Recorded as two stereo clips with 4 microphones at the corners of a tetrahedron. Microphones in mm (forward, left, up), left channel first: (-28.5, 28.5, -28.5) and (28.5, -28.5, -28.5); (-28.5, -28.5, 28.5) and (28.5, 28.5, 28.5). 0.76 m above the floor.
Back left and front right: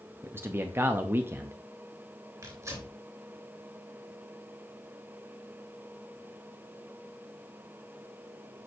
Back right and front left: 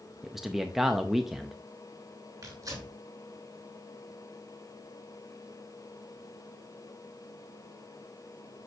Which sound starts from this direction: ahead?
Tearing paper, at 2.4 s.